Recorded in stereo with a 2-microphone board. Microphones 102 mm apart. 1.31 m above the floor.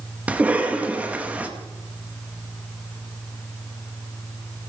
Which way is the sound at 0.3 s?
15° right (ahead or behind).